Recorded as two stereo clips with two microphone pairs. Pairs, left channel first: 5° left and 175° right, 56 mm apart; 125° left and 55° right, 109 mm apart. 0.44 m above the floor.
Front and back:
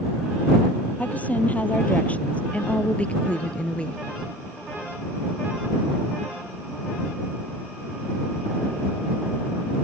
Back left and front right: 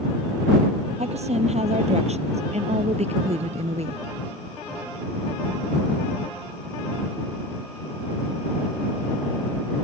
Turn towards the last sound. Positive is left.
turn(degrees=-65)